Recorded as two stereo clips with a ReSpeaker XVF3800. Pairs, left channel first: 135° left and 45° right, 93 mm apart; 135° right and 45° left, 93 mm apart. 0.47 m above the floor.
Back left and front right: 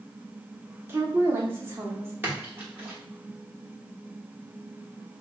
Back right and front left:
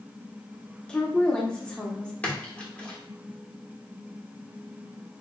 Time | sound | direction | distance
0.9 | a woman speaking | 70° right | 0.7 m
2.2 | a splash | 80° right | 1.1 m